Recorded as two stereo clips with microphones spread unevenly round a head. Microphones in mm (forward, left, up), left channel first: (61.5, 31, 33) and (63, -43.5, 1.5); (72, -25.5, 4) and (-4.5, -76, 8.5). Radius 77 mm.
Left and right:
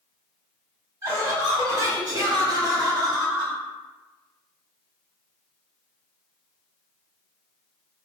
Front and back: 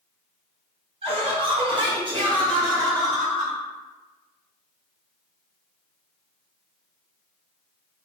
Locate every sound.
1.0 s laughter: 130° right, 1.3 m; by 3.6 s 95° right, 2.5 m